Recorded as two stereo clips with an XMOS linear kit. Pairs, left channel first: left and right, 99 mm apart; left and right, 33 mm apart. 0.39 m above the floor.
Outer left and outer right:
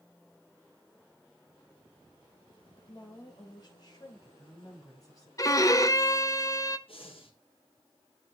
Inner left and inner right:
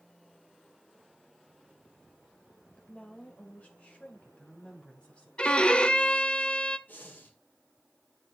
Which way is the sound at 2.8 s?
50° left (ahead or behind).